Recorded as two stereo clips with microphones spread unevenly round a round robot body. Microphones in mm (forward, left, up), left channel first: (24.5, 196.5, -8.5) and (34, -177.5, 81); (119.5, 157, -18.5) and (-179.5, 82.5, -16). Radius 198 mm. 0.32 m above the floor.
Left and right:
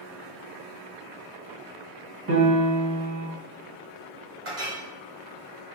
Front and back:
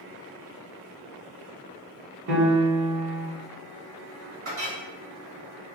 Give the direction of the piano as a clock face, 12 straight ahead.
5 o'clock.